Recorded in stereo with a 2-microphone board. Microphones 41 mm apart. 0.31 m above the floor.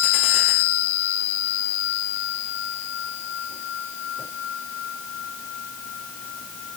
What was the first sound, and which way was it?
Only background noise.